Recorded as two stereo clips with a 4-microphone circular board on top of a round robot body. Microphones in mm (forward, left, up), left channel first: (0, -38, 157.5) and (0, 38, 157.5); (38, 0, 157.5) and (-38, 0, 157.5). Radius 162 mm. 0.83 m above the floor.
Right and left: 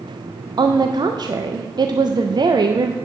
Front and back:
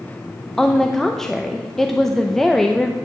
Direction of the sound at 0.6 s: 85° left.